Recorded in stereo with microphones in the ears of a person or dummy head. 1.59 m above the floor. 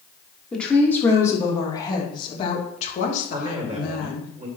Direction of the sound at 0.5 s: 5° left (ahead or behind).